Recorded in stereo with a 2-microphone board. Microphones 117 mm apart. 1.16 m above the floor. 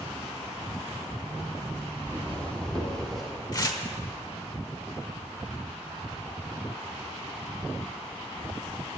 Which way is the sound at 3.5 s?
35° left (ahead or behind).